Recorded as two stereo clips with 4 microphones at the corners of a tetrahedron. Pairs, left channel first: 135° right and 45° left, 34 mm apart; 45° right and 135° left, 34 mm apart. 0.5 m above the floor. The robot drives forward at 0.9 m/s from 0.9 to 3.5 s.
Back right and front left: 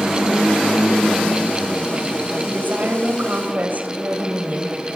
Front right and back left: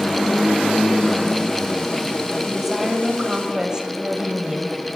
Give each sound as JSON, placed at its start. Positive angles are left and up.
{"t": 2.5, "sound": "a woman speaking", "azimuth_deg": 55, "distance_m": 3.0}